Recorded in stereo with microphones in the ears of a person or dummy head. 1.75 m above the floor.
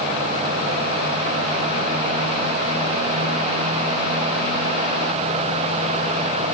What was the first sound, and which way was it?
Only background noise.